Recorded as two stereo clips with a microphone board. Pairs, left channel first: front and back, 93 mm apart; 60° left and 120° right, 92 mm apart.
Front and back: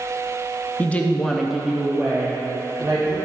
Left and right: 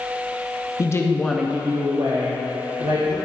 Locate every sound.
0.8 s a woman speaking: 60° left, 0.9 m; by 3.1 s 110° right, 2 m